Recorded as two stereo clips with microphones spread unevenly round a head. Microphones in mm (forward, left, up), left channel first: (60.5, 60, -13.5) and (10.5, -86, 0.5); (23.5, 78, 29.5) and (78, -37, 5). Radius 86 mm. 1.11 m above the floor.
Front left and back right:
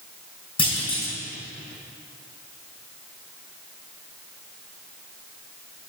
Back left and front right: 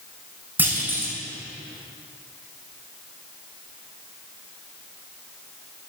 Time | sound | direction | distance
0.6 | a clunk | 15° left | 5 m